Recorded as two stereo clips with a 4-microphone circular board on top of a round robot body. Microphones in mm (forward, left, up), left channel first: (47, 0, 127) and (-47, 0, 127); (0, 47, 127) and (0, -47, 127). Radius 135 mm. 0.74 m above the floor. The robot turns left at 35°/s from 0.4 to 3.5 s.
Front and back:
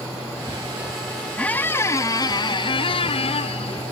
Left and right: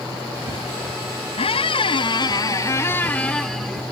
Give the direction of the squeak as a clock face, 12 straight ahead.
9 o'clock.